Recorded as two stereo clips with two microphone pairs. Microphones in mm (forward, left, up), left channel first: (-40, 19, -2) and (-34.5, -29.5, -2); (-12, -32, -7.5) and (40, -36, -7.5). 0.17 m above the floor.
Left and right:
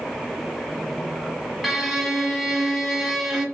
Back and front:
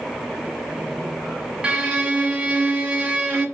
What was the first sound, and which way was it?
A violin, 5° left.